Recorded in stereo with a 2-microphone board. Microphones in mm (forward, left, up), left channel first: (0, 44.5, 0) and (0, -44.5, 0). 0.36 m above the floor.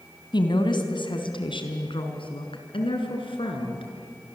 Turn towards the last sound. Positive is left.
turn(degrees=80)